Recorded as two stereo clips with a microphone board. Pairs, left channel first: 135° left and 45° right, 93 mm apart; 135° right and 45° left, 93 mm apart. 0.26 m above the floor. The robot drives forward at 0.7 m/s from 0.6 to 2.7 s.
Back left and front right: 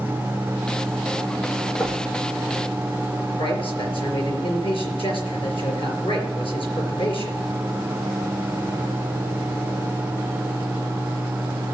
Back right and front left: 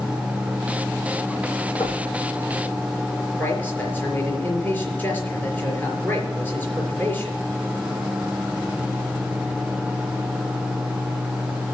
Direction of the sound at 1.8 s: 170° right.